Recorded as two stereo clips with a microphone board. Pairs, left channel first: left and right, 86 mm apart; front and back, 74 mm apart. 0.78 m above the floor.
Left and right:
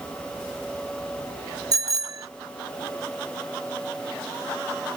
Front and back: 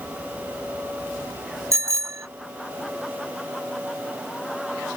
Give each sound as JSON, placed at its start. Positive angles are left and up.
{"t": 1.7, "sound": "a bicycle bell", "azimuth_deg": -135}